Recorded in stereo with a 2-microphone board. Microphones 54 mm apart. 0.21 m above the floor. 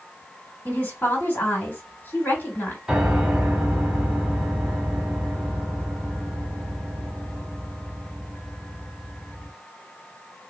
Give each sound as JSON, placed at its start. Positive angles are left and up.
{"t": 0.7, "sound": "a woman speaking", "side_deg": 35, "distance_m": 1.6}
{"t": 2.9, "sound": "a piano", "side_deg": -10, "distance_m": 1.0}